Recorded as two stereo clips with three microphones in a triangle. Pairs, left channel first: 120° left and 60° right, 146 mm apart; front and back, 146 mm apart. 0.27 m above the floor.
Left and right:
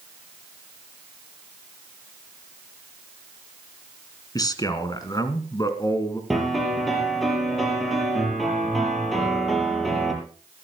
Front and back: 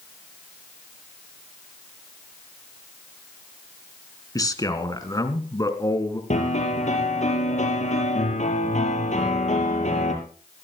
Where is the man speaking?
60° left, 3 m.